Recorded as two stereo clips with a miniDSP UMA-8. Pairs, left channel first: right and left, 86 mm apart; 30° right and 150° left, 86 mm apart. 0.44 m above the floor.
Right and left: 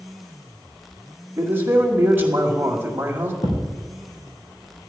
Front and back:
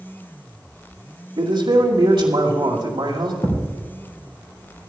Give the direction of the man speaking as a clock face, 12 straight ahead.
7 o'clock.